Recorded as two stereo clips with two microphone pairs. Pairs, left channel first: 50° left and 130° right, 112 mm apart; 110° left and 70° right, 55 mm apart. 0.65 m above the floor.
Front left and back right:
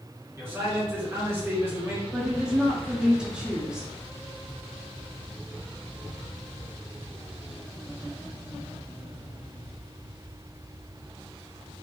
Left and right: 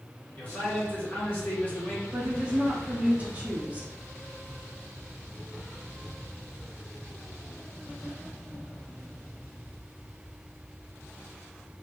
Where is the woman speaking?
50° right, 0.7 m.